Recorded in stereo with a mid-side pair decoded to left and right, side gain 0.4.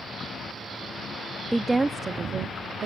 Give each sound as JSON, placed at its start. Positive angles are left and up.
{"t": 1.5, "sound": "a woman speaking", "azimuth_deg": -5, "distance_m": 0.5}